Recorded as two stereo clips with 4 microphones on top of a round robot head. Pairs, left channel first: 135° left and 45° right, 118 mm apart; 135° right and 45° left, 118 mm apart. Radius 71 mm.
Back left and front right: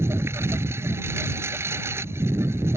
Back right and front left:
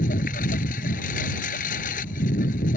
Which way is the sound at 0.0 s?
115° right.